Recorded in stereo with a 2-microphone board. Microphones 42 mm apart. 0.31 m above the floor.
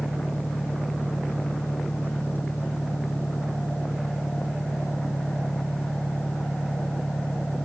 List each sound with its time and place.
0.0 s an engine running: 60° left (ahead or behind)